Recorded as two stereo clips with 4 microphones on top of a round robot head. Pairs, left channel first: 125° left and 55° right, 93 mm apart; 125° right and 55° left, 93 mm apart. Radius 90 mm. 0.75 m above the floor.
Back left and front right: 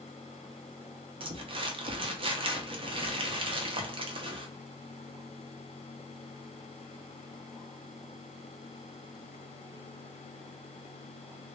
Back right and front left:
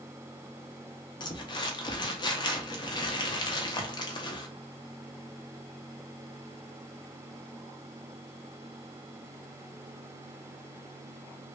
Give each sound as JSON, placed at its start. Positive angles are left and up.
{"t": 1.2, "sound": "crumpling", "azimuth_deg": -80, "distance_m": 0.7}